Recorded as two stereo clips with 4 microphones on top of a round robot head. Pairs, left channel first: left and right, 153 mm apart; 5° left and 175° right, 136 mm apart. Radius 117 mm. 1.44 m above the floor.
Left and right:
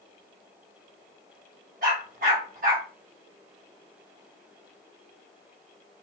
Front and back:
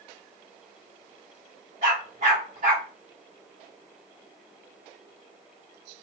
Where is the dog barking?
125° right, 1.3 m.